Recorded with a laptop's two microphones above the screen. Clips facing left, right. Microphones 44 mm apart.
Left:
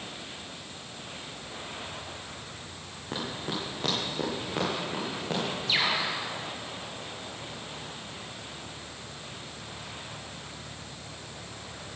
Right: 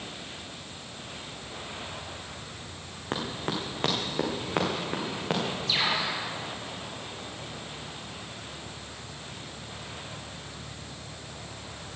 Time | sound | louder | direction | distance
3.1 | running footsteps | right 2 dB | 65° right (ahead or behind) | 3 m
5.7 | a bird | left 1 dB | 25° left (ahead or behind) | 6 m